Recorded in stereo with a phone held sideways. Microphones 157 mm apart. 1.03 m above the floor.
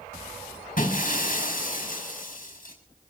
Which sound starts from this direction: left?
Breaking glass, at 0.8 s.